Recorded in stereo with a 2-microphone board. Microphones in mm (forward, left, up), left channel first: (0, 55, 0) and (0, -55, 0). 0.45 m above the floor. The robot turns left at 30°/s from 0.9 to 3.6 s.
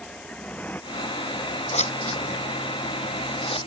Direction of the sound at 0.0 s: 5° left (ahead or behind).